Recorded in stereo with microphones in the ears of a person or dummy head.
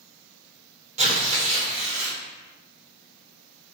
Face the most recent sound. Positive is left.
turn(degrees=-30)  # may be behind; listen again after turning